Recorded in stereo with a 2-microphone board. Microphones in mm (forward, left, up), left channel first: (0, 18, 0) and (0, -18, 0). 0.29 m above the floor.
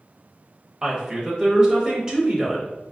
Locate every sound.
0.8 s a woman speaking: 20° right (ahead or behind), 0.9 m